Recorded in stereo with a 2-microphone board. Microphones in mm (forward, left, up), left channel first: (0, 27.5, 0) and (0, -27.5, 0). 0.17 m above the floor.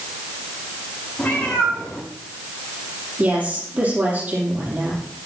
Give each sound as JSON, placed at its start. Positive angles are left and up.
{"t": 1.2, "sound": "a cat meowing", "side_deg": 25, "distance_m": 5.0}
{"t": 3.2, "sound": "a woman speaking", "side_deg": -30, "distance_m": 6.0}